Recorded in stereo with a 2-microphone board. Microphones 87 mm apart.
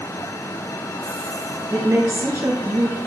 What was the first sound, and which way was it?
A woman speaking, 30° right (ahead or behind).